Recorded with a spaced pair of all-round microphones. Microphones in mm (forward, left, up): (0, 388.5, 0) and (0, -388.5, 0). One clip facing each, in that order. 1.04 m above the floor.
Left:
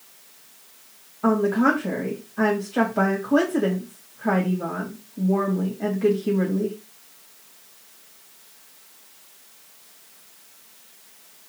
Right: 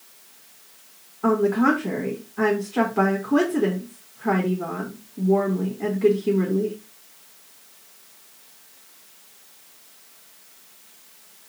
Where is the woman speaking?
15° left (ahead or behind), 1.7 m.